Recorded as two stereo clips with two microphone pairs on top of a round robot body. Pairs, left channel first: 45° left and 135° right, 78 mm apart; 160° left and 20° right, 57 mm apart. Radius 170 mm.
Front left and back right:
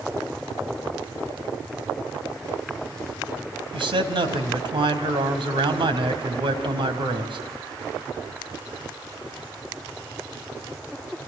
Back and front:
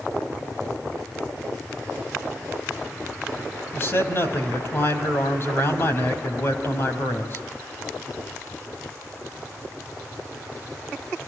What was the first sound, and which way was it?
A man speaking, 145° right.